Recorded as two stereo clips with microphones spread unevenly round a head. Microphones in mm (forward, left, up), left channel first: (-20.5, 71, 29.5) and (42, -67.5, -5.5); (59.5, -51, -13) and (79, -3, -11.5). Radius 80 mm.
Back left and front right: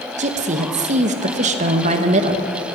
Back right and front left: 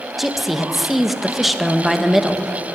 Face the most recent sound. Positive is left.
turn(degrees=-20)